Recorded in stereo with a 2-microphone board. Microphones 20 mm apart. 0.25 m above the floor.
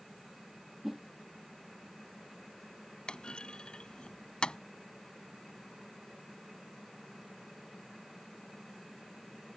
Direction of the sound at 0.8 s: 15° right (ahead or behind).